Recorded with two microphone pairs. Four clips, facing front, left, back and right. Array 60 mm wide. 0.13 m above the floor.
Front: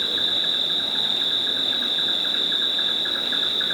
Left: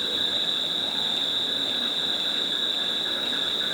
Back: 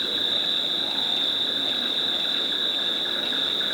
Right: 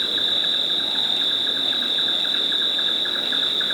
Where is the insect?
65° right, 1.8 m.